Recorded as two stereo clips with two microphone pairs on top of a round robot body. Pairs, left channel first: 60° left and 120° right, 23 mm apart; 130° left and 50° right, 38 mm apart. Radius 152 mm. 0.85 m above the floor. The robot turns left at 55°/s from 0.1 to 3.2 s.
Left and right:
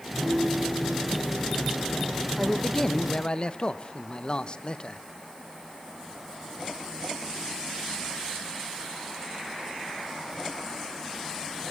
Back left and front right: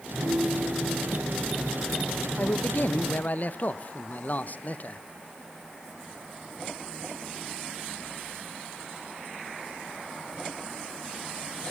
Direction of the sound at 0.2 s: 75° right.